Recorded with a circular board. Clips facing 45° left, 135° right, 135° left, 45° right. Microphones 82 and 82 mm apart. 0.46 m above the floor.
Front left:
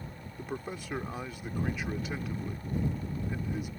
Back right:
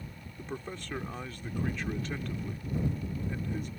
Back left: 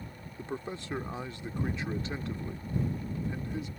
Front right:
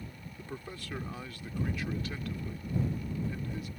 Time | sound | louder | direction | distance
0.4 | a man speaking | front left 2 dB, back left 6 dB | 115° left | ?